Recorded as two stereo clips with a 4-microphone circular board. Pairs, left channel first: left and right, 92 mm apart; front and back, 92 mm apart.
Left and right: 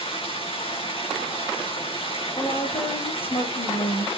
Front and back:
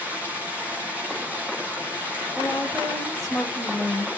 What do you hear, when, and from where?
0.0 s running water: 105° left, 5 m
2.4 s a woman speaking: 90° left, 7 m